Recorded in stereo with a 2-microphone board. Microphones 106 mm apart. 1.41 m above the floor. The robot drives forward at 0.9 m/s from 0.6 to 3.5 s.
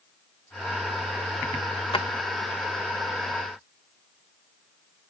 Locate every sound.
1.9 s a drawer: 55° left (ahead or behind)